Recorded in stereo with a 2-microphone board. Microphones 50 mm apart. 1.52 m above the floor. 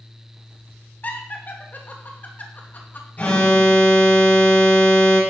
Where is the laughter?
40° left (ahead or behind), 2.5 m.